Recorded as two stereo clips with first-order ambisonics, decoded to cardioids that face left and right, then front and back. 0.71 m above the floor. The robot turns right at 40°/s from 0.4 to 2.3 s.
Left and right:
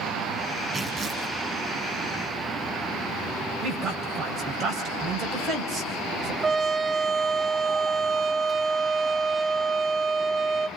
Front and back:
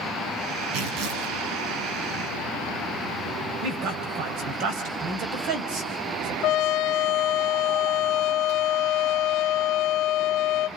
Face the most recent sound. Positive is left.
turn(degrees=-20)